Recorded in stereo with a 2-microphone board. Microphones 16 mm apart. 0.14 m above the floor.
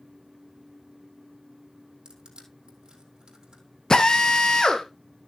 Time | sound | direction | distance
2.0 | crushing | 65° right (ahead or behind) | 3 m
3.9 | a drill | 45° left (ahead or behind) | 1.3 m